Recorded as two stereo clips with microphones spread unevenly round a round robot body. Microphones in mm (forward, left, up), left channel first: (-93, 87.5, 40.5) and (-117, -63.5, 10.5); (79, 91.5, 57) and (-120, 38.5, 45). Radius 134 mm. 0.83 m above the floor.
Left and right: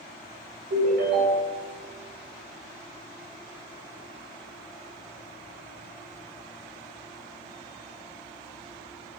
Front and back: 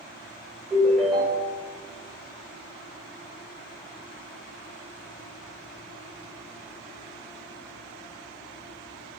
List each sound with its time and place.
0.7 s a ringtone: 75° right, 2.5 m